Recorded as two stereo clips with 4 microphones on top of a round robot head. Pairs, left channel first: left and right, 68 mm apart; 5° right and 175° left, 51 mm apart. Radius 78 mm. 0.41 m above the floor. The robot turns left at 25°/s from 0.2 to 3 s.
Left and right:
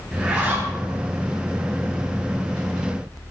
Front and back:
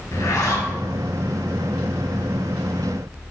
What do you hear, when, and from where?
0.1 s a zipper: 15° right, 3 m; by 0.7 s 30° right, 3 m